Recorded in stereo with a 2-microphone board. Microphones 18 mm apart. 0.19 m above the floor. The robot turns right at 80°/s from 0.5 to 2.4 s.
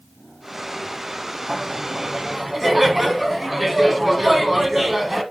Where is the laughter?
85° right, 1.3 m; by 5.2 s 15° right, 1.3 m.